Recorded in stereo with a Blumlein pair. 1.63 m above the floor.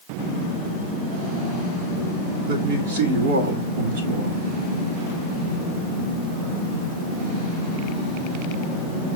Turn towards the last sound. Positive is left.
turn(degrees=-55)